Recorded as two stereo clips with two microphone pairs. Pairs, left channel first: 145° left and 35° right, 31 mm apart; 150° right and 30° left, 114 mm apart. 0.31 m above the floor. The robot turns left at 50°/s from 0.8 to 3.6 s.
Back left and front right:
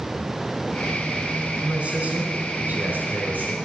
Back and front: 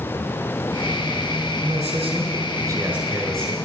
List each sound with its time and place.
1.6 s a man speaking: 25° left, 4 m; by 3.5 s 70° right, 4 m